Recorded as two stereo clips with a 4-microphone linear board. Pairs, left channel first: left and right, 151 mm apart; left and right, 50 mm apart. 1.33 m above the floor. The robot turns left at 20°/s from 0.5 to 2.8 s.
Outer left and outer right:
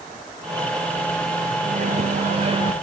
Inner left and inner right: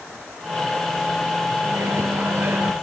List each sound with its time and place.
1.6 s a microwave: 55° right (ahead or behind), 0.9 m; by 2.7 s 35° right (ahead or behind), 0.9 m